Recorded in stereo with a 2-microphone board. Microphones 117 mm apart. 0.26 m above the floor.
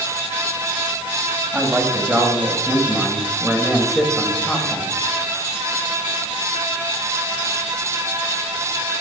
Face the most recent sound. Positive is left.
turn(degrees=5)  # may be behind; listen again after turning